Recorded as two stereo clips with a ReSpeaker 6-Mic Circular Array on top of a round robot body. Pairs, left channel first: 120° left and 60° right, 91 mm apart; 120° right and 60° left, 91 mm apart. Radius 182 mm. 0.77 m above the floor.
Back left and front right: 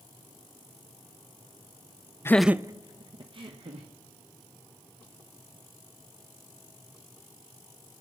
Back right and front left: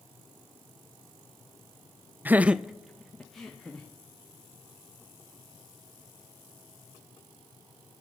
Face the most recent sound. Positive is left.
turn(degrees=-35)